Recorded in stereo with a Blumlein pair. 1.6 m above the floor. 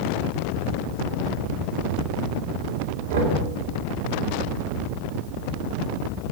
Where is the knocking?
60° right, 3 m.